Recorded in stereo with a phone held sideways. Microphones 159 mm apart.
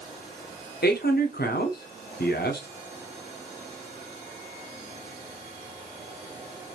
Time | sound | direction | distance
0.8 | a man speaking | 85° left | 0.6 m